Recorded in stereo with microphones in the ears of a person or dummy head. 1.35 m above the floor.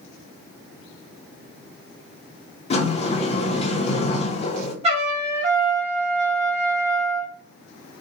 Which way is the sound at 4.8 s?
35° right (ahead or behind).